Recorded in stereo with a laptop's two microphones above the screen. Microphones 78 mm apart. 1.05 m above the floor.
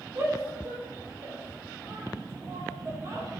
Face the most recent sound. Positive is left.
turn(degrees=-35)  # may be behind; listen again after turning